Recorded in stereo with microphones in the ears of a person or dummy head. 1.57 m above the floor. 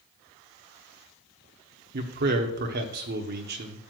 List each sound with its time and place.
1.9 s a man speaking: 55° right (ahead or behind), 1.0 m